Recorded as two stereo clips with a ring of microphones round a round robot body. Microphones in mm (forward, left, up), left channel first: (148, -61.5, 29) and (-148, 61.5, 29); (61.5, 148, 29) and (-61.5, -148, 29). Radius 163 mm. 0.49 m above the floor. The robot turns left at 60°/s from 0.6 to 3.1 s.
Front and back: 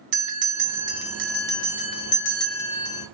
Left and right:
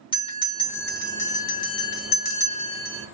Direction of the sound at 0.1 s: 145° left.